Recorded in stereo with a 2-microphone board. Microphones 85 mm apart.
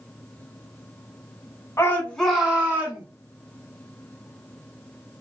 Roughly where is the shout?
Left.